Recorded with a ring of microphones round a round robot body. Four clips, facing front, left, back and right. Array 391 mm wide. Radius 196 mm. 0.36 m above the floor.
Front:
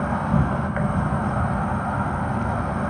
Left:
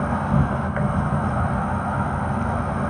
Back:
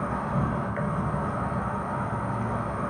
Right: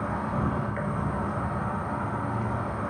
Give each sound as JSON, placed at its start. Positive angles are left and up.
{"t": 0.0, "sound": "an insect", "azimuth_deg": 45, "distance_m": 0.9}